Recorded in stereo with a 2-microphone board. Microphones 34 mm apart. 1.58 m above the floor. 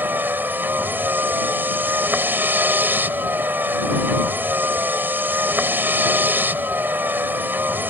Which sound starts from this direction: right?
A vehicle, at 0.0 s.